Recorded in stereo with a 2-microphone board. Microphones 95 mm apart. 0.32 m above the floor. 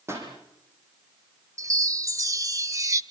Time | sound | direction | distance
0.1 | a pop | 30° right (ahead or behind) | 7.5 m
1.6 | a chime | 35° right (ahead or behind) | 0.9 m